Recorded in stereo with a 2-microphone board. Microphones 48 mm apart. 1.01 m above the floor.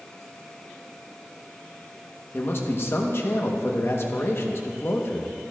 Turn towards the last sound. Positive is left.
turn(degrees=55)  # may be behind; listen again after turning